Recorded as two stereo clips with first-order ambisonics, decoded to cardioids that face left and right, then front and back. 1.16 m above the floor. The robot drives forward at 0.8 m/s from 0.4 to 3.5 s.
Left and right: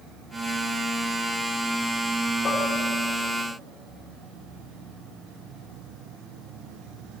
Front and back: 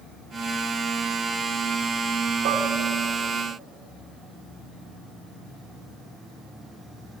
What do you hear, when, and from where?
2.5 s dishes clattering: 155° left, 2.5 m